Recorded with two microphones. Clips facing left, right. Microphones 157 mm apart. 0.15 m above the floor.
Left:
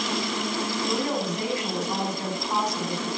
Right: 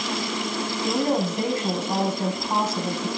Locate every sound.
0.8 s a woman speaking: 25° right (ahead or behind), 7.5 m